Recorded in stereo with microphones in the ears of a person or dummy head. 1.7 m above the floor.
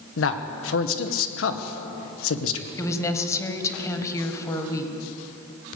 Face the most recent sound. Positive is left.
turn(degrees=20)  # may be behind; listen again after turning